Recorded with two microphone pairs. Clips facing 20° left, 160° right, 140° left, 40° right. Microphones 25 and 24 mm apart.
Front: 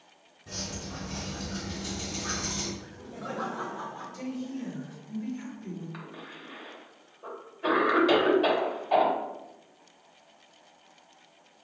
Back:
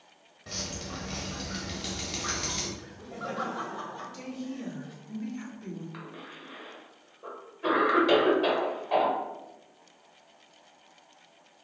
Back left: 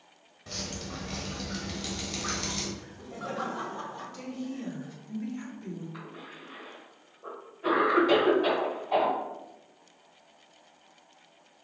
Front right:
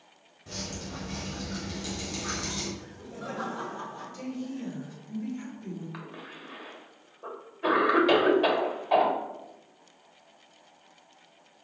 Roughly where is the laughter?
Behind.